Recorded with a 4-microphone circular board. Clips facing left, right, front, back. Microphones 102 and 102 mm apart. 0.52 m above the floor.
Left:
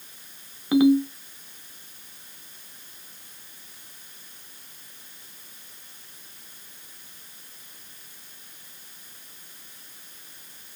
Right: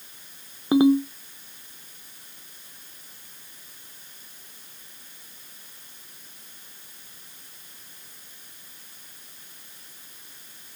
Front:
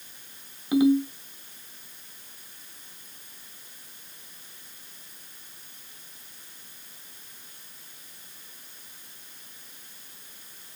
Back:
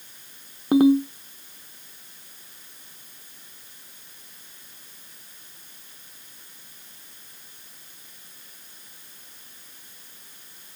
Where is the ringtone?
145° right, 0.6 m.